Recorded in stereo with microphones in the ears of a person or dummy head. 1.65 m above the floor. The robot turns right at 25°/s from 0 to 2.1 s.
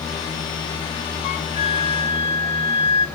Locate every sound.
1.2 s a flute: 40° left (ahead or behind), 0.7 m; by 3.1 s 25° left (ahead or behind), 0.7 m